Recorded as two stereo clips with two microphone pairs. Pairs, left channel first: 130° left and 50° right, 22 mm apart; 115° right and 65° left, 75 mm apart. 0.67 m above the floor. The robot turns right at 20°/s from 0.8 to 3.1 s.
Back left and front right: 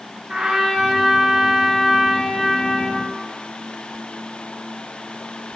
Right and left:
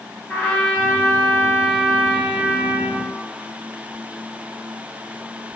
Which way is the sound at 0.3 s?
40° right.